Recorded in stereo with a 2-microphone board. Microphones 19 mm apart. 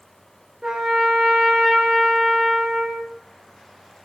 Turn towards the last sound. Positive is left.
turn(degrees=-45)  # may be behind; listen again after turning